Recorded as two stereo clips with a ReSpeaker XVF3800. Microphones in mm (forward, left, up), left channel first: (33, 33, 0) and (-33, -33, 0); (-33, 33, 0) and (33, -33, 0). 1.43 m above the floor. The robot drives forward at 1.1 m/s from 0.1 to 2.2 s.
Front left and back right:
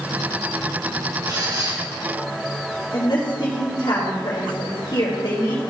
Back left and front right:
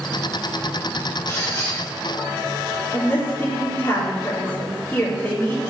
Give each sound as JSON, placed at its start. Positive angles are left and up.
{"t": 1.3, "sound": "a squeak", "azimuth_deg": -170, "distance_m": 3.5}
{"t": 2.9, "sound": "a woman speaking", "azimuth_deg": 75, "distance_m": 3.0}